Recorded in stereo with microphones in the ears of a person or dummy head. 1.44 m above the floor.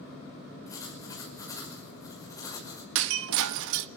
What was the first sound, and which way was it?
Writing, 15° left (ahead or behind).